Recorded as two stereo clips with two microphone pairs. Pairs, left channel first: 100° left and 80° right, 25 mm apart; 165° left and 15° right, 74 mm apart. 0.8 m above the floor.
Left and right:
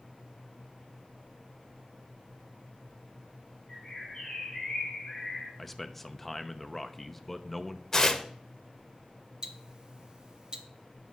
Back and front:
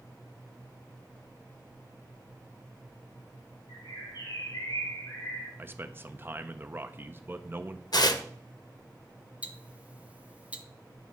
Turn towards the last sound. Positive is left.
turn(degrees=-75)